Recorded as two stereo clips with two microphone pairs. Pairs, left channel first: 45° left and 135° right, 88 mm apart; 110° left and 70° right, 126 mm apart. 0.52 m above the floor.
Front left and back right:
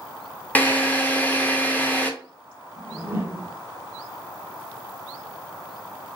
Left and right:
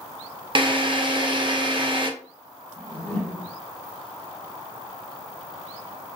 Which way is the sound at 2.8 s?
Straight behind.